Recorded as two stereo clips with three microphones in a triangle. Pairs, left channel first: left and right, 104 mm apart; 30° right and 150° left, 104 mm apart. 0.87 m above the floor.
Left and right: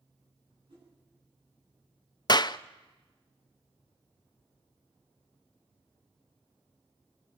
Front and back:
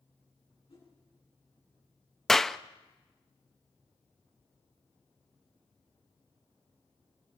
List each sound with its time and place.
0.7 s a whoosh: 55° right, 10 m
2.3 s a clap: 55° left, 0.5 m